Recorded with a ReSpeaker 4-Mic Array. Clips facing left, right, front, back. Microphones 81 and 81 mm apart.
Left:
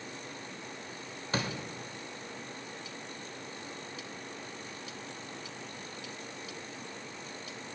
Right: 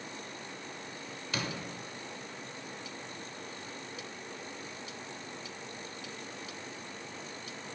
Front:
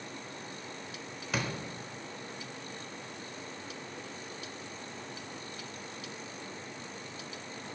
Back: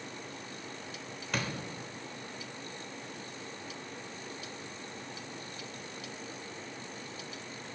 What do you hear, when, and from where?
1.3 s a door slam: 85° left, 0.6 m